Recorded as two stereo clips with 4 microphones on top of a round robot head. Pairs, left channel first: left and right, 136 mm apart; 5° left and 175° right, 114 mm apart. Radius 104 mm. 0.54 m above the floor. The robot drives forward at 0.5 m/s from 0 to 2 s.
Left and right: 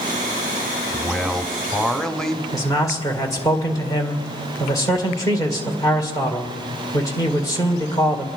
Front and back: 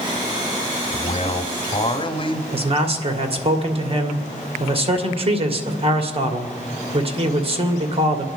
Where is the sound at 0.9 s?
5° left, 1.5 m.